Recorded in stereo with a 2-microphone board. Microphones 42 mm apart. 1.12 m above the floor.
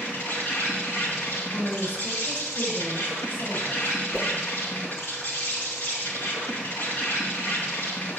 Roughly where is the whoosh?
Left.